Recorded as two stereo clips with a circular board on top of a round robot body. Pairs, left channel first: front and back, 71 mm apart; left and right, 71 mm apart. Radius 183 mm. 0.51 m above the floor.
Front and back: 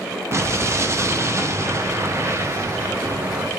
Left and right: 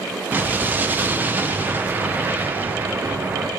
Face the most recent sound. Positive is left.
turn(degrees=-145)